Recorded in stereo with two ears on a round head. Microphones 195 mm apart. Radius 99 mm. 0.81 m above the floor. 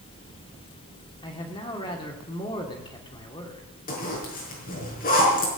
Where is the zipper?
40° left (ahead or behind), 5.5 m.